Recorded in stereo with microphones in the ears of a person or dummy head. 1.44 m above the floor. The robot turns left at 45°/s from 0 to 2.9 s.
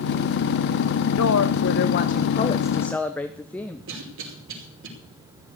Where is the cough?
70° right (ahead or behind), 5 m.